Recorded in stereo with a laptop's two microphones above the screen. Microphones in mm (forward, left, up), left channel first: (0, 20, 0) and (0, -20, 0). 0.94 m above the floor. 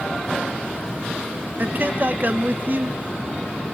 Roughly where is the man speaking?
Right.